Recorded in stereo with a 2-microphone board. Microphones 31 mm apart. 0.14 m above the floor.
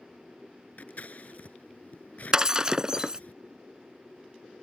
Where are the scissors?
55° left (ahead or behind).